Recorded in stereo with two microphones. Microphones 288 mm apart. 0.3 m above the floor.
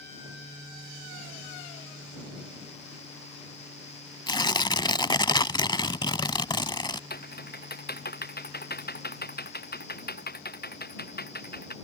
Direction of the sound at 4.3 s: 15° left (ahead or behind).